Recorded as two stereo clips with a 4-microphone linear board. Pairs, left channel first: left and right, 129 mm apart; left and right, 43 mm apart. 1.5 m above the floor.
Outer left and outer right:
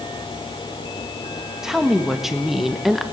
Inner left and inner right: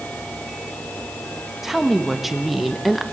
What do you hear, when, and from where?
1.6 s a woman speaking: 5° right (ahead or behind), 2.0 m; by 3.0 s centre (ahead or behind), 1.2 m